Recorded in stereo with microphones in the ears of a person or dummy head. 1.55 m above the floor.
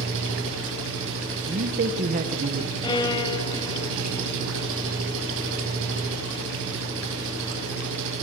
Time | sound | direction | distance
0.0 | an engine running | 75° right (ahead or behind) | 5 m
1.5 | a man speaking | 35° right (ahead or behind) | 1.5 m
2.8 | a violin | 20° left (ahead or behind) | 1.8 m